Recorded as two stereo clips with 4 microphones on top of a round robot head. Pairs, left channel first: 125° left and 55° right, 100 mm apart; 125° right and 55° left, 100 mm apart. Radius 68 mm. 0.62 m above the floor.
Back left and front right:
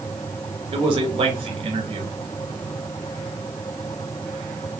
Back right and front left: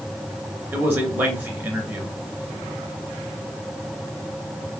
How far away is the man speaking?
About 2.5 m.